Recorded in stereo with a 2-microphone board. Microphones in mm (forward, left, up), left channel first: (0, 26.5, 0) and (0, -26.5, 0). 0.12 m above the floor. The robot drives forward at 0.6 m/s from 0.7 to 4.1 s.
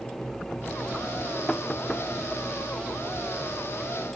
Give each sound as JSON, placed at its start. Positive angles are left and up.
{"t": 1.5, "sound": "knocking", "side_deg": 15}